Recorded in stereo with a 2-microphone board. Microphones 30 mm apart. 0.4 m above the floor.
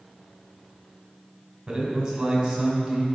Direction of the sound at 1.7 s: 20° right (ahead or behind).